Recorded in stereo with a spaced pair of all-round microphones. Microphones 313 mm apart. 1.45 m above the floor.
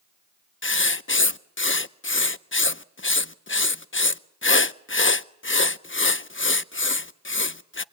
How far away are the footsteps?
No footsteps in this recording.